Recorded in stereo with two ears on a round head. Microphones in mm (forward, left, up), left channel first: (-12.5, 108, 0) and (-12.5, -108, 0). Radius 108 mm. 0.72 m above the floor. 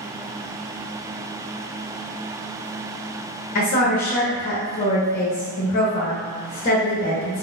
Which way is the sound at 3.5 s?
35° left (ahead or behind).